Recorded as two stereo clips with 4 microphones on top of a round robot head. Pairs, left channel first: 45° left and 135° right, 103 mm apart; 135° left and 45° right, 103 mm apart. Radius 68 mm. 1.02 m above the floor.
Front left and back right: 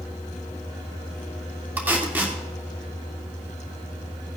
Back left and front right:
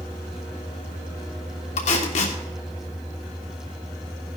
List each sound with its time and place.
1.8 s tape being pulled: 150° left, 2.0 m